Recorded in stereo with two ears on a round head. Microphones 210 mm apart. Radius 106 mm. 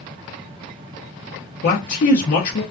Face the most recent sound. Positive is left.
turn(degrees=40)  # may be behind; listen again after turning